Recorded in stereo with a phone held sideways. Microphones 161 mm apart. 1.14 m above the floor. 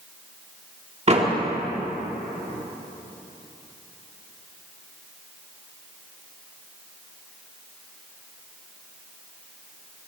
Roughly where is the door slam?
Right.